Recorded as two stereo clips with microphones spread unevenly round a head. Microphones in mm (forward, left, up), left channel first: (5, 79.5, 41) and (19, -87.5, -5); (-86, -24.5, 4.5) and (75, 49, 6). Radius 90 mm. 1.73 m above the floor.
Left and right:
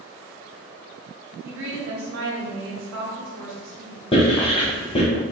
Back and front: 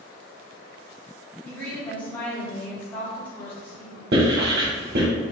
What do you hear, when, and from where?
1.4 s a woman speaking: 75° right, 1.5 m
4.1 s writing: 45° left, 1.4 m